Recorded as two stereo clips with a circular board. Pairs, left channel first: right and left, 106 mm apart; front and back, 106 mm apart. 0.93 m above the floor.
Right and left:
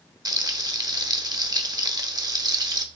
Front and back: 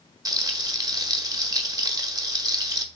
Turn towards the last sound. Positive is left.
turn(degrees=135)